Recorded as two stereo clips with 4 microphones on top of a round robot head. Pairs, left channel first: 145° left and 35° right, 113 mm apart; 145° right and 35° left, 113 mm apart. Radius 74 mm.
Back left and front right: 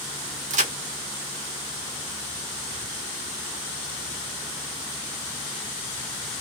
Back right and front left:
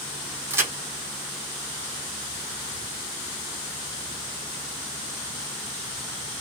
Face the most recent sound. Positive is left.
turn(degrees=-35)